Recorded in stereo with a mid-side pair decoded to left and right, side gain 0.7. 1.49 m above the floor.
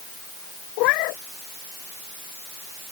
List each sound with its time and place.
0.8 s a cat meowing: 65° left